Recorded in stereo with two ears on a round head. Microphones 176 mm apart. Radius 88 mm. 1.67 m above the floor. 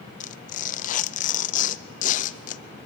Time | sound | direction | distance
0.2 | tearing paper | 40° left (ahead or behind) | 0.6 m